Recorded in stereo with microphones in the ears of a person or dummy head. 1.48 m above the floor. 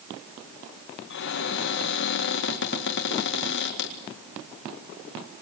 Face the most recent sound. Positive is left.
turn(degrees=65)  # may be behind; listen again after turning